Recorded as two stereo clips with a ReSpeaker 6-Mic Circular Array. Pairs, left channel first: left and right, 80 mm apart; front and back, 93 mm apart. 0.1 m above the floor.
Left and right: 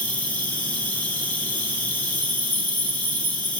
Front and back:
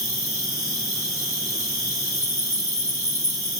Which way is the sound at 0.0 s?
35° left.